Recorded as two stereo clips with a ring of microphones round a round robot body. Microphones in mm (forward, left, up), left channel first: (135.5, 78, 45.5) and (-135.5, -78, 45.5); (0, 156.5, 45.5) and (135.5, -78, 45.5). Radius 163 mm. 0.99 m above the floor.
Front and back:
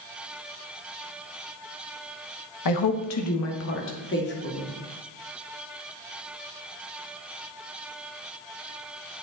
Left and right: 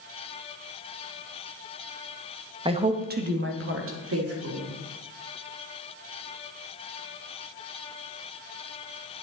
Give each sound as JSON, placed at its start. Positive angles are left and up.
{"t": 2.6, "sound": "a woman speaking", "azimuth_deg": 10, "distance_m": 1.2}